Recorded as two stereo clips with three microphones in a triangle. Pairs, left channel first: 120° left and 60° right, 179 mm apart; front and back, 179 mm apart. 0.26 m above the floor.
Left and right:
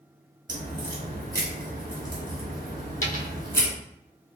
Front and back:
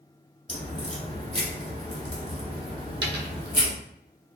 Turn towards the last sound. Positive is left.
turn(degrees=160)